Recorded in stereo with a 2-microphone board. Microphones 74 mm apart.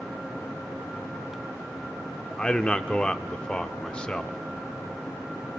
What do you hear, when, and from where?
2.4 s a man speaking: 15° left (ahead or behind), 0.7 m